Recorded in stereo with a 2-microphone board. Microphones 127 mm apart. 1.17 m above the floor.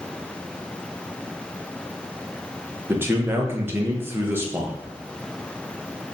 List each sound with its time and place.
2.9 s a man speaking: 20° right (ahead or behind), 0.8 m